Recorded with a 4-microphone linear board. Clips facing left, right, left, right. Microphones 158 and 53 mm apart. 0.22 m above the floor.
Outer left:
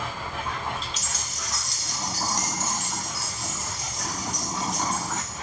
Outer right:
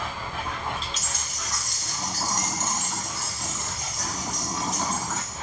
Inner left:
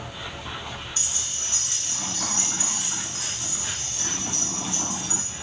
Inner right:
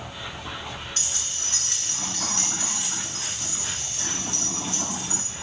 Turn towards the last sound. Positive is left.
turn(degrees=-45)  # may be behind; listen again after turning